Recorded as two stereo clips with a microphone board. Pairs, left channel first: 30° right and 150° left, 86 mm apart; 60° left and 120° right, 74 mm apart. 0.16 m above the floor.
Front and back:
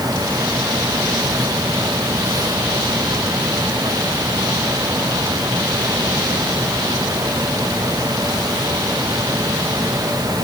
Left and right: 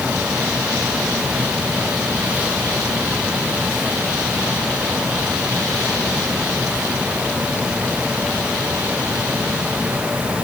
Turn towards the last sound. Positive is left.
No sound to turn to.